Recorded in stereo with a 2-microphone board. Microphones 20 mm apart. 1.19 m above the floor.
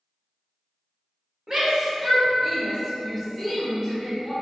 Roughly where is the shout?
Right.